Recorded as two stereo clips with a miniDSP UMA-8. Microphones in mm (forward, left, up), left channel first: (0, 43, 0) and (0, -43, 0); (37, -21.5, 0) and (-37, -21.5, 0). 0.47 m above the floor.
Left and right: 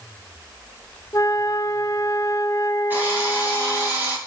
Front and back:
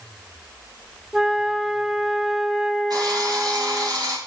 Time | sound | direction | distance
1.1 | a flute | 100° left | 0.6 m
2.9 | a drill | 155° right | 2.5 m